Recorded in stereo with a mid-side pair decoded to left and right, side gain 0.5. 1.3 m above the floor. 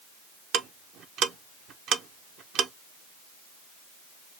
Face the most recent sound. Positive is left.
turn(degrees=-65)